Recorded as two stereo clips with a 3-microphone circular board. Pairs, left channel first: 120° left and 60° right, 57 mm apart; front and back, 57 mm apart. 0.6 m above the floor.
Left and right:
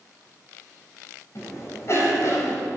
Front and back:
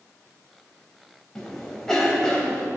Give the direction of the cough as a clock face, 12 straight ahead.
9 o'clock.